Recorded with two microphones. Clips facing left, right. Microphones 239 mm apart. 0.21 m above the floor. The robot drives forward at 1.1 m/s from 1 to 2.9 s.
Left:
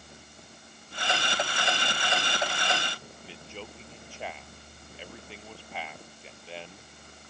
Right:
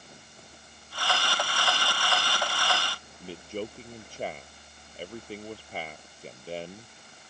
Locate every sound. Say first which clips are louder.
3.2 s a man speaking: right 11 dB; 40° right (ahead or behind)